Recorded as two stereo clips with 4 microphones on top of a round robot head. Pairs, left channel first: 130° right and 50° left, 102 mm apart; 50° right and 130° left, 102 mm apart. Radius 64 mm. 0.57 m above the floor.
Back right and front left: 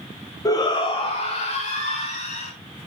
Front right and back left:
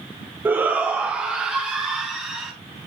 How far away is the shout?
About 0.8 m.